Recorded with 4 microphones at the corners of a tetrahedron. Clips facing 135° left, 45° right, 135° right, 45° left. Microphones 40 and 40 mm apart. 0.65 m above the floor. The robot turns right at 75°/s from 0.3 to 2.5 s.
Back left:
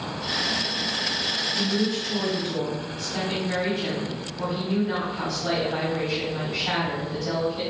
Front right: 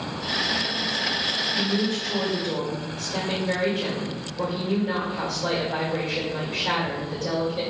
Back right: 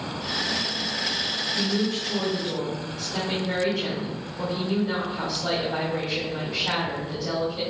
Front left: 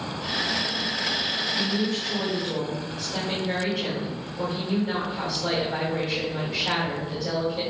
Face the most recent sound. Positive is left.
turn(degrees=-45)